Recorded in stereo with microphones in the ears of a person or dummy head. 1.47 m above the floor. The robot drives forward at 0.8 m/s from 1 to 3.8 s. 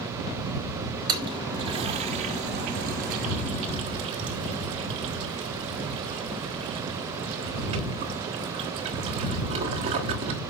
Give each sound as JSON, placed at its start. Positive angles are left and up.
{"t": 1.1, "sound": "a toilet flushing", "side_deg": -25, "distance_m": 1.8}